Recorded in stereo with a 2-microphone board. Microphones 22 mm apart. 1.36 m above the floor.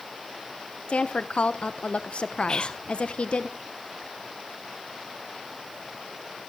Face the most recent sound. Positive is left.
turn(degrees=40)  # may be behind; listen again after turning